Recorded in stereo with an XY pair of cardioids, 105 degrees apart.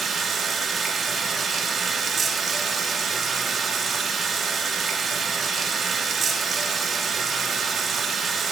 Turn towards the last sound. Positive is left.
turn(degrees=-45)